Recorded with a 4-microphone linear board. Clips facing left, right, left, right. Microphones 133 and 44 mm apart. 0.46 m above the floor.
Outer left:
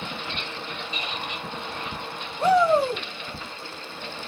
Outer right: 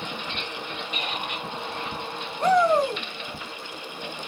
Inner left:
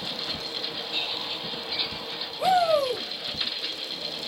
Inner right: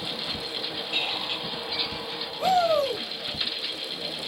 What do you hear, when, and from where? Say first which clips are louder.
0.9 s a squeak: outer right 3 dB, inner right 4 dB; 65° right (ahead or behind), 1.0 m
2.4 s a shout: outer left 1 dB, inner left 1 dB; 5° left (ahead or behind), 2.5 m